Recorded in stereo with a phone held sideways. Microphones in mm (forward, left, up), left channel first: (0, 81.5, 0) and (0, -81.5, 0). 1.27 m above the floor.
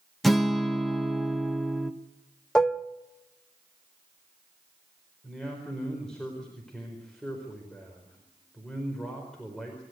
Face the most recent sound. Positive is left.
turn(degrees=5)  # may be behind; listen again after turning